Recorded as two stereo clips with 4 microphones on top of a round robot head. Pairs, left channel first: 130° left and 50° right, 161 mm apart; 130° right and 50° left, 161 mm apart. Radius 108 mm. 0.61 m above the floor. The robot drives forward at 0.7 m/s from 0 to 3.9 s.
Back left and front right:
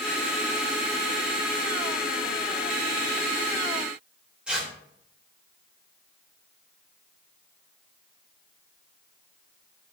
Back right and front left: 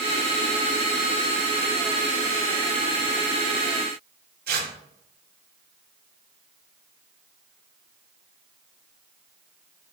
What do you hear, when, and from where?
4.5 s tearing paper: 35° left, 3 m